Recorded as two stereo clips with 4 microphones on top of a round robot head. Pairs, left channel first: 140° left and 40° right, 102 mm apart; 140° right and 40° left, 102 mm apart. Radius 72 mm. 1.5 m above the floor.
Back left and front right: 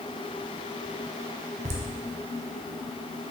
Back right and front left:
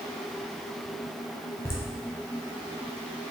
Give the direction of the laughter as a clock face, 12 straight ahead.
2 o'clock.